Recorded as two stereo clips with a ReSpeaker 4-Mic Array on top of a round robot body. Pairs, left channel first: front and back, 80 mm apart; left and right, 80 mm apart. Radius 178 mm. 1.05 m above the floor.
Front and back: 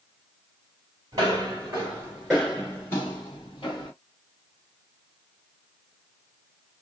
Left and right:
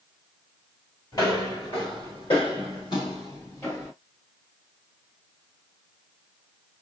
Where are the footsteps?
135° left, 1.4 m; by 3.9 s 25° left, 1.4 m.